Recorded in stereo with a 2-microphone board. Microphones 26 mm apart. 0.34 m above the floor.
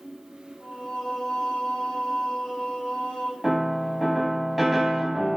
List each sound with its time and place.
0.6 s singing: 50° left (ahead or behind), 2.5 m
3.4 s a piano: centre (ahead or behind), 0.6 m